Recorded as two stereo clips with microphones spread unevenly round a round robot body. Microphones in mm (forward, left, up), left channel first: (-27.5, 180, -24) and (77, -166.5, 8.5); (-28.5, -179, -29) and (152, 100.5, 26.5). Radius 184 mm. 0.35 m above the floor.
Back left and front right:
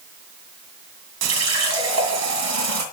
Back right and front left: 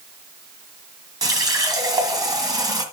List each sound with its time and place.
1.2 s a running tap: 25° right, 2 m